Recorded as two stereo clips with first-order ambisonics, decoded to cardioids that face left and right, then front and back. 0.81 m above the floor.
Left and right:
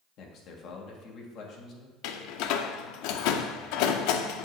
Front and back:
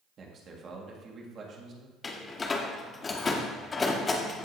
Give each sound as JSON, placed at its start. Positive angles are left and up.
{"t": 0.2, "sound": "a man speaking", "azimuth_deg": 125, "distance_m": 1.6}
{"t": 2.0, "sound": "a door slam", "azimuth_deg": 70, "distance_m": 0.7}